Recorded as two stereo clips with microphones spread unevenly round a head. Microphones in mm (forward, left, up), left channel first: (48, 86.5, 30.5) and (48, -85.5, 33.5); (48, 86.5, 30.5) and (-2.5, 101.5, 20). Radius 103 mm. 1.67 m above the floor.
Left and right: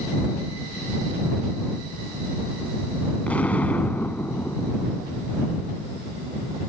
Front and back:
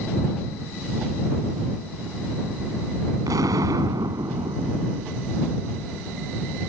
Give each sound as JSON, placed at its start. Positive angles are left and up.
{"t": 3.3, "sound": "an explosion", "azimuth_deg": 175}